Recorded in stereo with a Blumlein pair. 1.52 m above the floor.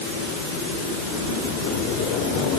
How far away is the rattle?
I don't hear a rattle.